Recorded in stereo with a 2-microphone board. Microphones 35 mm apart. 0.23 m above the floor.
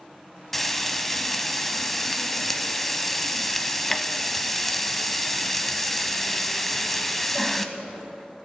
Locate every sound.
0.5 s frying: 5° left (ahead or behind), 0.7 m